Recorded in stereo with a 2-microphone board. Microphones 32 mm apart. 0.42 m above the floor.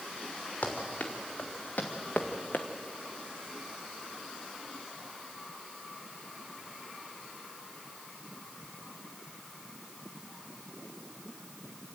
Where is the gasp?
No gasp in this recording.